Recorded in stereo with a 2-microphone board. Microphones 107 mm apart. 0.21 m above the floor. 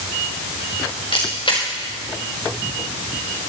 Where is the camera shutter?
55° left (ahead or behind), 3.5 m.